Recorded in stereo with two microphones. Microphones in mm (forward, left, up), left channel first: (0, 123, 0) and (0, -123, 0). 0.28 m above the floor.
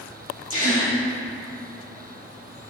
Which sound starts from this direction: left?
A gasp, at 0.5 s.